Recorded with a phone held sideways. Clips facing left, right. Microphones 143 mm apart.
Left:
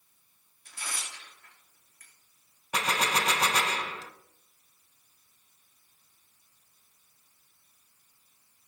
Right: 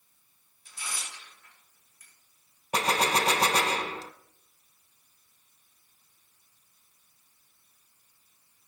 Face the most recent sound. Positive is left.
turn(degrees=-35)  # may be behind; listen again after turning